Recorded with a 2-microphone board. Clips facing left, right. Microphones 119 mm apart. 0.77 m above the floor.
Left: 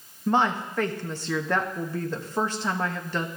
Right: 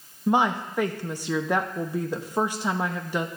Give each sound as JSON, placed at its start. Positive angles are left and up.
{"t": 0.3, "sound": "a woman speaking", "side_deg": -10, "distance_m": 0.6}